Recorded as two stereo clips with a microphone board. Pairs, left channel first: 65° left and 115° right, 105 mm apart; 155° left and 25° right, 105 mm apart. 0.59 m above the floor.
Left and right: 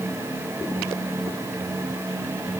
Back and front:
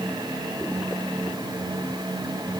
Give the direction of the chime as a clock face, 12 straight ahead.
I don't hear a chime.